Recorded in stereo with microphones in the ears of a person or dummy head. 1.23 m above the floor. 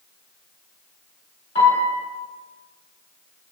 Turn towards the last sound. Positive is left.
turn(degrees=35)  # may be behind; listen again after turning